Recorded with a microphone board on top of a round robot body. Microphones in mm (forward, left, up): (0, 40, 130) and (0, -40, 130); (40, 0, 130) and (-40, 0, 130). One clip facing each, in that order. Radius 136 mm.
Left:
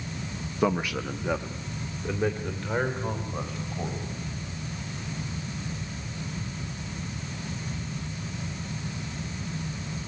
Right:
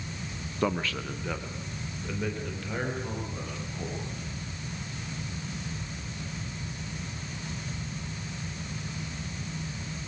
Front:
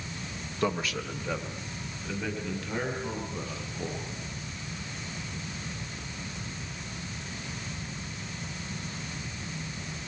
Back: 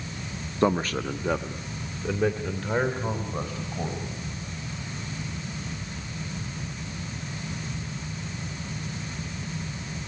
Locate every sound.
0.6 s a man speaking: 165° left, 1.1 m; by 4.2 s 155° left, 5 m